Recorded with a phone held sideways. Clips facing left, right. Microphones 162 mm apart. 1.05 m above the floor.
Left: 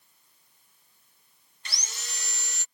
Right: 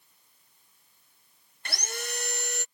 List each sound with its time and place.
1.6 s sawing: 55° right (ahead or behind)